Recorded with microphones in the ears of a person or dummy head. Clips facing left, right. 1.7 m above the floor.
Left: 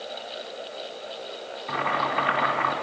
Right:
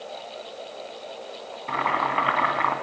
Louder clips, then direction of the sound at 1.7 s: Right 1 dB; 55° right (ahead or behind).